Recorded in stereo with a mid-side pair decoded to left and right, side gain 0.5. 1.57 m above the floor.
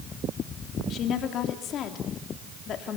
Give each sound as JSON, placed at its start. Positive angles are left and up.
{"t": 0.9, "sound": "a woman speaking", "azimuth_deg": 60, "distance_m": 3.0}